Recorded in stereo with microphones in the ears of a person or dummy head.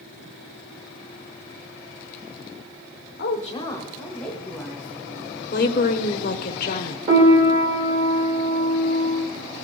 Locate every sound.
3.2 s a woman speaking: 60° left (ahead or behind), 1.0 m; by 5.4 s 10° right (ahead or behind), 3.5 m
5.5 s a woman speaking: 55° left (ahead or behind), 0.9 m
7.1 s a piano: 25° right (ahead or behind), 1.6 m